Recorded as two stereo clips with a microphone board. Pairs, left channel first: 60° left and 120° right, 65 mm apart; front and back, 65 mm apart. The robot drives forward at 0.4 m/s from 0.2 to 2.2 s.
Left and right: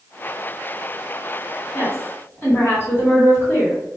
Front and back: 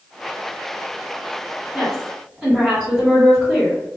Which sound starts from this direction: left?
A woman speaking, at 1.7 s.